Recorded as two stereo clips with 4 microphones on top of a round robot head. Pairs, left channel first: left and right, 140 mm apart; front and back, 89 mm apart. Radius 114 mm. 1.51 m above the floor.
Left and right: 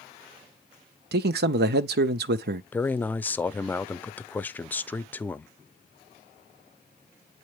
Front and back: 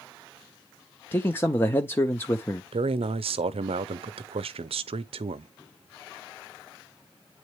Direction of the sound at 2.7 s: 170° left.